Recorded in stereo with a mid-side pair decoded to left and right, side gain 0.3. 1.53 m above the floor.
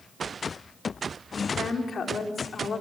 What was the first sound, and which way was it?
A woman speaking, 65° left.